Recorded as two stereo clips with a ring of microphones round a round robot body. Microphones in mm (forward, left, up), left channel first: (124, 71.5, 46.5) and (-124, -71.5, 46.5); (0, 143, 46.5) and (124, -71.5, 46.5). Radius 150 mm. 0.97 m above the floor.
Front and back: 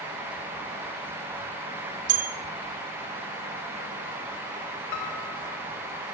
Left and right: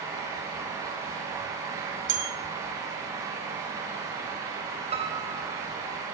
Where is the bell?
110° right, 1.5 m.